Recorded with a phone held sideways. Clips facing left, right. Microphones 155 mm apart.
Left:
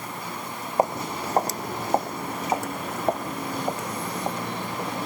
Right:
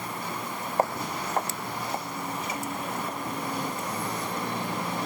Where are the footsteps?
15° left (ahead or behind); by 5.0 s 65° left (ahead or behind).